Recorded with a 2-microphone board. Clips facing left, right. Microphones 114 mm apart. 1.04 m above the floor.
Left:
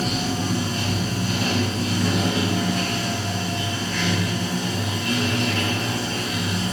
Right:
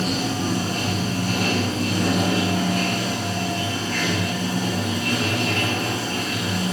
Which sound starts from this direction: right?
Running water, at 0.0 s.